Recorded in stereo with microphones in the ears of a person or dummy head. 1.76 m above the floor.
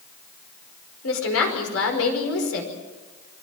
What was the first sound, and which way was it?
A woman speaking, 85° left.